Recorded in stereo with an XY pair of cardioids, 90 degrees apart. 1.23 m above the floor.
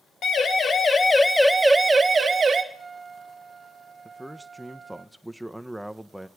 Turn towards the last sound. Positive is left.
turn(degrees=-10)